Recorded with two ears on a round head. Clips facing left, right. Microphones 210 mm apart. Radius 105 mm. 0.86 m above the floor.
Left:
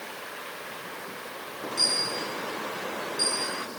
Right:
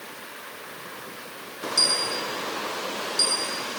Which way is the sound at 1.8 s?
75° right (ahead or behind).